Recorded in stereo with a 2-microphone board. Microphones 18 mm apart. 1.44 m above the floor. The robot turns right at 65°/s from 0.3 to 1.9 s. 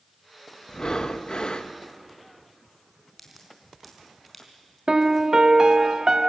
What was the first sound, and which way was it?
Breathing, 55° left.